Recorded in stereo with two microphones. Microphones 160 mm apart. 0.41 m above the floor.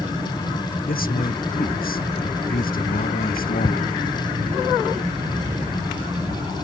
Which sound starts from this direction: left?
A man speaking, at 0.9 s.